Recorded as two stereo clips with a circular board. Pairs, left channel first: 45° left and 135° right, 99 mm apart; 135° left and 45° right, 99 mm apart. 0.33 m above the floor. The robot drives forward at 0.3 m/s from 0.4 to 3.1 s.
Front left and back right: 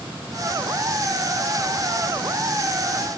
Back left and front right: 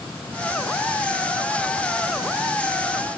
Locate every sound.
Only background noise.